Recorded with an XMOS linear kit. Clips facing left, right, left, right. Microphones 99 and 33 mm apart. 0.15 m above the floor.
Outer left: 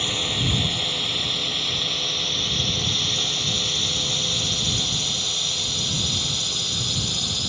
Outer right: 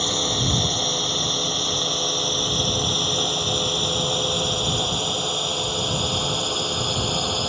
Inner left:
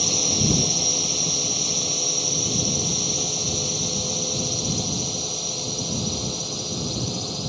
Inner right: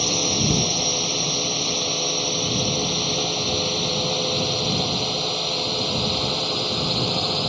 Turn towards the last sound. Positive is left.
turn(degrees=-50)  # may be behind; listen again after turning